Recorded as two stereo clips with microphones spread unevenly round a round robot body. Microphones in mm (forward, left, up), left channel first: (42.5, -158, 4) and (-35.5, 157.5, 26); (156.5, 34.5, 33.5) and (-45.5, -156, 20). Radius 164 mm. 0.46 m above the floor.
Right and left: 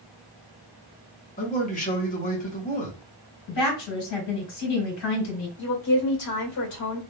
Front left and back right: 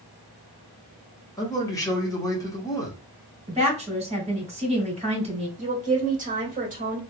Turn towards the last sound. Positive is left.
turn(degrees=-85)